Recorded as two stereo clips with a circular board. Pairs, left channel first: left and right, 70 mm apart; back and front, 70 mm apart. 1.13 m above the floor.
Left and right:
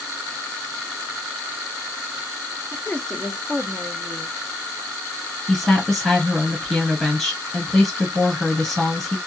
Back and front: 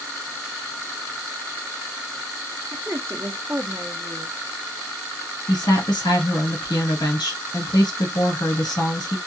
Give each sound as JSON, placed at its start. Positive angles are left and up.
{"t": 2.7, "sound": "a woman speaking", "azimuth_deg": 40, "distance_m": 0.7}
{"t": 5.5, "sound": "a woman speaking", "azimuth_deg": 175, "distance_m": 1.4}